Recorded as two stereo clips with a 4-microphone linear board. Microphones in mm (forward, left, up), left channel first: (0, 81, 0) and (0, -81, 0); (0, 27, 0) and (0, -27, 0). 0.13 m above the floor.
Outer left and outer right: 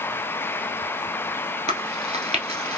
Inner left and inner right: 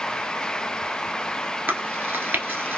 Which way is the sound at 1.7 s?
45° right (ahead or behind).